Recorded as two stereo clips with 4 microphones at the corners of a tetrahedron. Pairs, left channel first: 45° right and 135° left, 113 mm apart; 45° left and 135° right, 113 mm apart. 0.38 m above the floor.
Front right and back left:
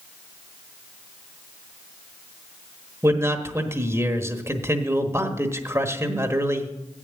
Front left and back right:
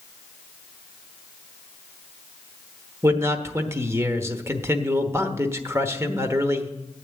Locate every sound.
3.0 s a man speaking: straight behind, 1.1 m